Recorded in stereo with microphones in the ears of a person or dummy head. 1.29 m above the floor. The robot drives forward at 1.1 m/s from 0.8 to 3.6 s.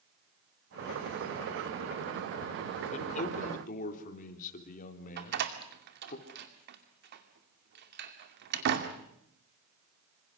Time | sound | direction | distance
2.9 | a man speaking | 40° left (ahead or behind) | 4.5 m
5.2 | a door slam | 60° right (ahead or behind) | 2 m